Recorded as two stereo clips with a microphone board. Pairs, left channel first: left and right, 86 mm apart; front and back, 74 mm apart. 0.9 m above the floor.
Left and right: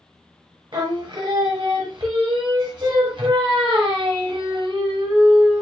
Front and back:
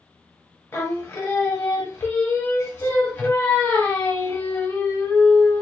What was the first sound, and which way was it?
Singing, 60° right.